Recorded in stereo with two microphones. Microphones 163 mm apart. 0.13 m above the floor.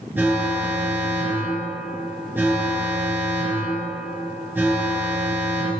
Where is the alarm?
15° right (ahead or behind), 2.5 m.